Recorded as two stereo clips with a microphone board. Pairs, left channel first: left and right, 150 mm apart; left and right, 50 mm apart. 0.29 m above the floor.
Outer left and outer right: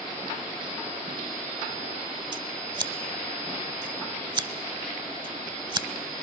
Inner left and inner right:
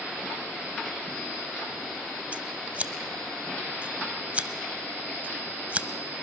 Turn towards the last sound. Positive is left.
turn(degrees=-30)  # may be behind; listen again after turning